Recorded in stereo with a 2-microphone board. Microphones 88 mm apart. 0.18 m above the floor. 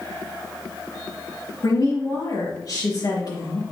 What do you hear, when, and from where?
1.6 s a woman speaking: 45° left (ahead or behind), 3.5 m